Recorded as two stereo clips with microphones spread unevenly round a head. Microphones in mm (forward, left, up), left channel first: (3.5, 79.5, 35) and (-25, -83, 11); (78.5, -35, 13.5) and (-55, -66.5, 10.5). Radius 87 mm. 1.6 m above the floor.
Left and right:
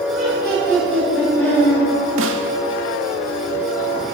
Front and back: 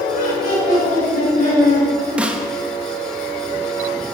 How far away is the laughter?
About 6.5 m.